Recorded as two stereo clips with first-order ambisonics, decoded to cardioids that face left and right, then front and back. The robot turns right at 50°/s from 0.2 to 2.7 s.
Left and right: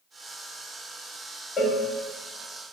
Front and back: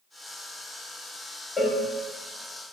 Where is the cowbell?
70° left, 0.5 m; by 1.8 s 85° left, 0.5 m.